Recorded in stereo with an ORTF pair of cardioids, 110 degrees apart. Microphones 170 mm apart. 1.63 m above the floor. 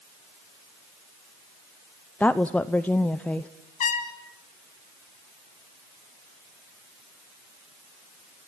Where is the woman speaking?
10° left, 0.8 m.